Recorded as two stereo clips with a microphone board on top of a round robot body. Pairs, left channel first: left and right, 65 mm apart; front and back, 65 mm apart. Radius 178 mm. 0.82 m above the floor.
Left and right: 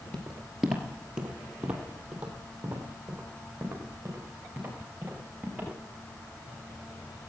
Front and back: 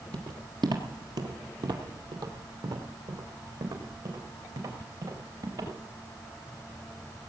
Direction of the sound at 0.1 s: 170° left.